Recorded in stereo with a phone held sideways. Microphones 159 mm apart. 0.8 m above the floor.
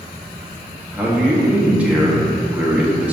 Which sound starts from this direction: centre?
A man speaking, at 0.9 s.